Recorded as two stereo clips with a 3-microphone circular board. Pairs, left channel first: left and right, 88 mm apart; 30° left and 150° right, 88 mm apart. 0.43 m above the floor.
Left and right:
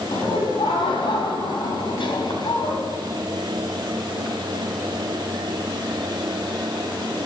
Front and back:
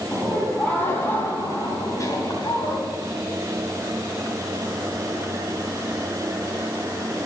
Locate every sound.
0.1 s laughter: 105° left, 4.5 m; by 2.8 s 65° left, 3.5 m